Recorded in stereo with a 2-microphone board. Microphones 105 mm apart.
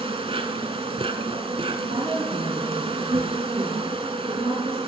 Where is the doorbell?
I don't hear a doorbell.